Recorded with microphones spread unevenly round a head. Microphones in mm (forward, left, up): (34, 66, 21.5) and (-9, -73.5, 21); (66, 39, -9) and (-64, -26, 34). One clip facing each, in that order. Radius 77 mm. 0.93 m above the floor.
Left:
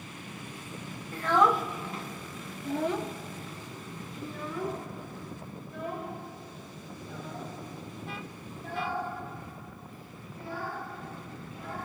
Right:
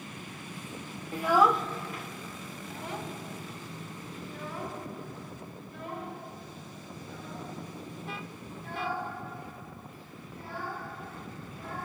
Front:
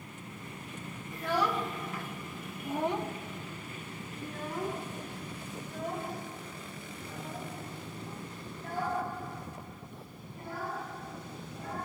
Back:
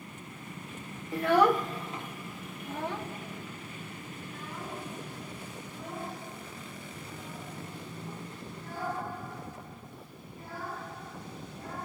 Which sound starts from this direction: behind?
A child speaking, at 1.1 s.